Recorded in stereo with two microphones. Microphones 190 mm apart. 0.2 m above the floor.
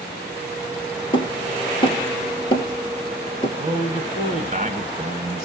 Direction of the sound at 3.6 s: 40° right (ahead or behind).